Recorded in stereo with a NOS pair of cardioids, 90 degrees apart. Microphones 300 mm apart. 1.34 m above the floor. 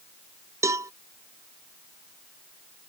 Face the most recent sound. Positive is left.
turn(degrees=-10)